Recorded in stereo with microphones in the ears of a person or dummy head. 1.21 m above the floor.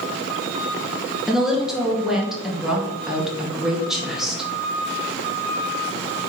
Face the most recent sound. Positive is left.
turn(degrees=-5)  # may be behind; listen again after turning